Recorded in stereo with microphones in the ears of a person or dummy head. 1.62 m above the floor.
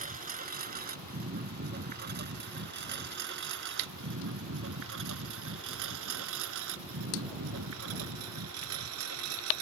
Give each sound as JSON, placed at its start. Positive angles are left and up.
{"t": 0.0, "sound": "a lawn mower", "side_deg": -50}